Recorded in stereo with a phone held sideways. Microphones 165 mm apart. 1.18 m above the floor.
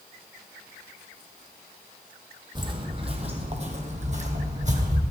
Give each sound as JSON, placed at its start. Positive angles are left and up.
{"t": 2.5, "sound": "footsteps", "side_deg": -30, "distance_m": 1.5}